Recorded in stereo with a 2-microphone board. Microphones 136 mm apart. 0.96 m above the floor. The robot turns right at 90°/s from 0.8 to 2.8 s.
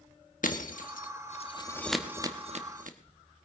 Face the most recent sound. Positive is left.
turn(degrees=-75)  # may be behind; listen again after turning